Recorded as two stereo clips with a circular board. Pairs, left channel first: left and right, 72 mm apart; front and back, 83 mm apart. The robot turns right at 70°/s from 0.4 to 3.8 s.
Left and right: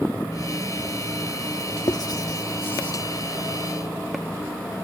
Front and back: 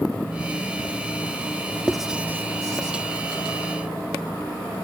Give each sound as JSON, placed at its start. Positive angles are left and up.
{"t": 1.9, "sound": "writing", "azimuth_deg": 85}